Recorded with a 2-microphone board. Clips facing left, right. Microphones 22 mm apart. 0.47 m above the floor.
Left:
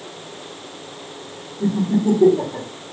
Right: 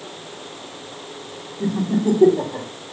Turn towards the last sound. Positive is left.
turn(degrees=-25)  # may be behind; listen again after turning